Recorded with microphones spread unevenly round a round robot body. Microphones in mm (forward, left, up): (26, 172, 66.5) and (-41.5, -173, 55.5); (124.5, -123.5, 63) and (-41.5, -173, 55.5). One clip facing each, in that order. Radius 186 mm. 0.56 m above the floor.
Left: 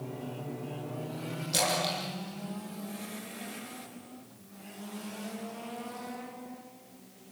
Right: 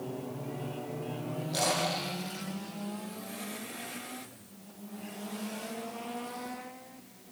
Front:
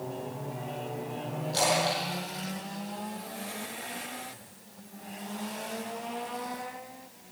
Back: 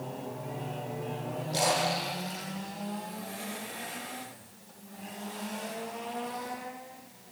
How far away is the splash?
About 8.5 m.